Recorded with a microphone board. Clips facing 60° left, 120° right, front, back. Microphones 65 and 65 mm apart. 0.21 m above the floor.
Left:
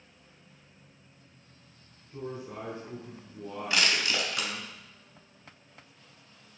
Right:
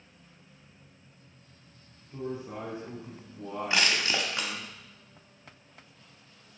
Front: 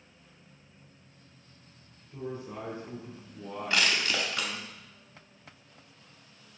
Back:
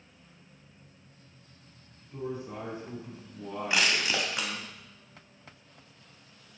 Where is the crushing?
125° right, 0.8 m.